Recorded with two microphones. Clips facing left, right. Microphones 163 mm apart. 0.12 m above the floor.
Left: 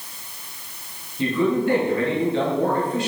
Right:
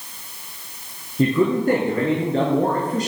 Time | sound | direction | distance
1.2 | a man speaking | 40° right (ahead or behind) | 1.7 m